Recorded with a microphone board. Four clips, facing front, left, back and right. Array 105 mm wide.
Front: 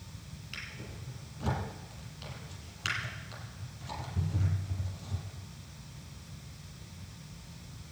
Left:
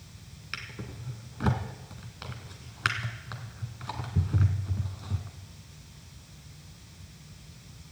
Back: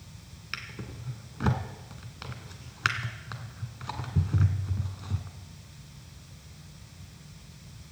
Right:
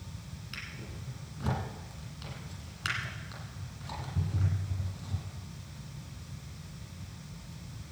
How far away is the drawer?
About 1.8 m.